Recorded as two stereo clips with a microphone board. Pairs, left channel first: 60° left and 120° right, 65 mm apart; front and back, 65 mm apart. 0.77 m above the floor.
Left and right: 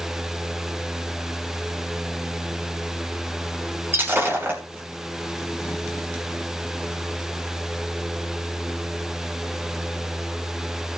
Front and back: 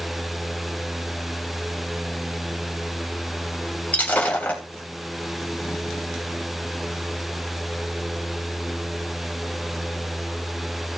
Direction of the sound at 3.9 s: 65° right.